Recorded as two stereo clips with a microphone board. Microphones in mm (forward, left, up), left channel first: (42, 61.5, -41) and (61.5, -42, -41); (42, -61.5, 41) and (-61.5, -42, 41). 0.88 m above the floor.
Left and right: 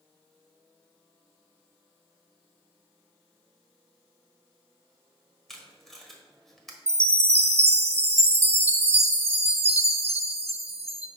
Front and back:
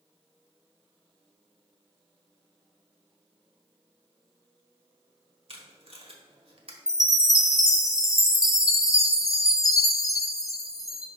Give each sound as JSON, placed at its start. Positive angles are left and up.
{"t": 5.5, "sound": "tape being pulled", "azimuth_deg": -170, "distance_m": 1.2}
{"t": 6.9, "sound": "a chime", "azimuth_deg": -70, "distance_m": 0.6}